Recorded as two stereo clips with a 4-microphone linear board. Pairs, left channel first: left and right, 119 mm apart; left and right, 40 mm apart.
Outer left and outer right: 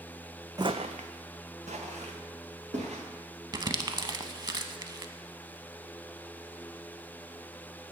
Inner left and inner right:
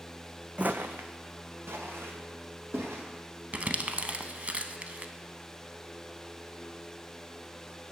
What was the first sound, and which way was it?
Footsteps, 35° right (ahead or behind).